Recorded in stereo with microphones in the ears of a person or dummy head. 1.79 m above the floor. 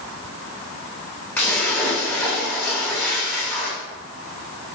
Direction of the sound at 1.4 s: 15° left (ahead or behind).